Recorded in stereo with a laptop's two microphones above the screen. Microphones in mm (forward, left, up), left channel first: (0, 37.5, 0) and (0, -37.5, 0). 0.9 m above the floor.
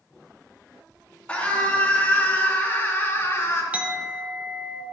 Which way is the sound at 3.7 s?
15° right (ahead or behind).